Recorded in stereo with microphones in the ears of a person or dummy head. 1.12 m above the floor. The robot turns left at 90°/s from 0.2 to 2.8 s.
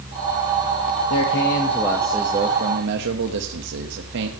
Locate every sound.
1.1 s a man speaking: 85° left, 1.3 m; by 4.3 s 65° right, 1.3 m